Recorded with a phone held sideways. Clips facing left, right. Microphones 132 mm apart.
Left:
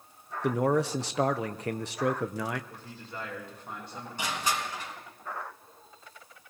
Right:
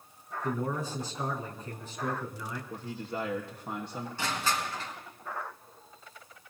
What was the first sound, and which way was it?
A man speaking, 85° left.